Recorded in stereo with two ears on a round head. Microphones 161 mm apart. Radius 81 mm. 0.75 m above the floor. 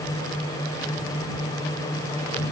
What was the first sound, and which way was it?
Only background noise.